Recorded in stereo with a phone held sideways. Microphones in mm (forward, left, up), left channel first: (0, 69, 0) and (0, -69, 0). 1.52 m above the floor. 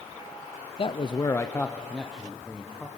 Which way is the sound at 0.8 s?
45° left (ahead or behind).